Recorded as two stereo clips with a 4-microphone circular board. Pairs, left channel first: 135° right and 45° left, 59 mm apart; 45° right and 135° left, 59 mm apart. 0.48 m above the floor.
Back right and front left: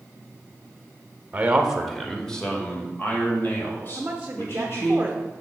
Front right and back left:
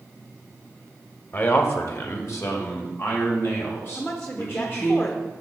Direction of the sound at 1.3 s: 15° right.